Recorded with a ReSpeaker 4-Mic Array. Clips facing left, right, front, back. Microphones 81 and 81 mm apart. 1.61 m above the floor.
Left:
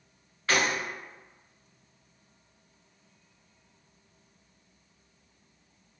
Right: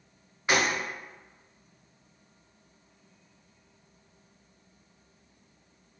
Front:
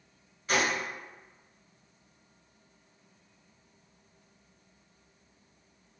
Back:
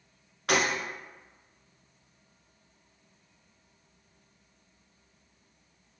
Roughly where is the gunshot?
Behind.